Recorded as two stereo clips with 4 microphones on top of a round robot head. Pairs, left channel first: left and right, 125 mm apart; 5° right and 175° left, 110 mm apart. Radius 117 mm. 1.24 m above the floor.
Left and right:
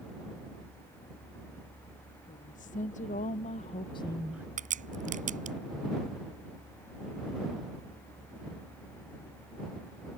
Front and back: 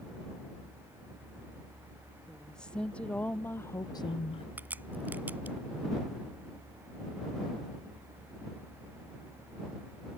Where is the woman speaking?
80° left; by 4.5 s 30° right.